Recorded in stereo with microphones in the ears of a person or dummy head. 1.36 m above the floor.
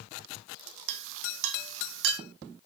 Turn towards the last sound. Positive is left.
turn(degrees=-75)  # may be behind; listen again after turning